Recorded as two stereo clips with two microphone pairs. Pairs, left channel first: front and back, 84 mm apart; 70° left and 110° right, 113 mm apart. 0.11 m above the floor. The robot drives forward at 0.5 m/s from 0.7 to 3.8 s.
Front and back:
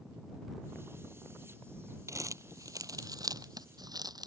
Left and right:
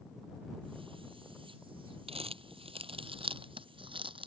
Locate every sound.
2.1 s crumpling: 130° right; by 4.3 s 145° right